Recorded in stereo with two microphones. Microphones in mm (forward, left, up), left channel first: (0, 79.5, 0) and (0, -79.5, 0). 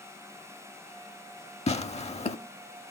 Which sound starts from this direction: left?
Tearing paper, at 1.7 s.